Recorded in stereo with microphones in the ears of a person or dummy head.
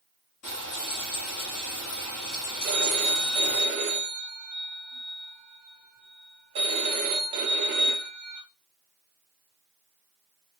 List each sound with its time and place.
0.4 s frying: 35° left (ahead or behind), 1.2 m
2.6 s a phone ringing: 30° right (ahead or behind), 0.6 m